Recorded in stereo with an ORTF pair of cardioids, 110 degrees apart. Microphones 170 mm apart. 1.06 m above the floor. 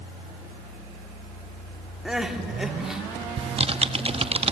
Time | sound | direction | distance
2.0 | crying | 5° right | 3 m
3.4 | typing on a keyboard | 35° right | 1.0 m